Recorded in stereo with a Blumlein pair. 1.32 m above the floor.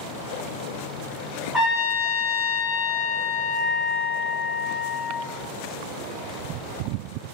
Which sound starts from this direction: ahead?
A trumpet, at 1.5 s.